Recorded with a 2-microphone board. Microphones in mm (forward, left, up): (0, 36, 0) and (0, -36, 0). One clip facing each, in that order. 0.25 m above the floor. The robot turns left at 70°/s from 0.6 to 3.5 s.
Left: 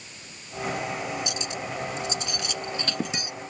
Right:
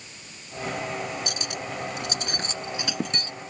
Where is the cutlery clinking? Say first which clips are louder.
Left 1 dB; 50° right (ahead or behind); by 3.3 s 15° left (ahead or behind).